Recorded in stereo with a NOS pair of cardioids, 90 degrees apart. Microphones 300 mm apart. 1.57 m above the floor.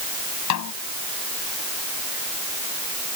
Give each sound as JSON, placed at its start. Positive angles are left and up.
{"t": 0.5, "sound": "a snare drum", "azimuth_deg": 65}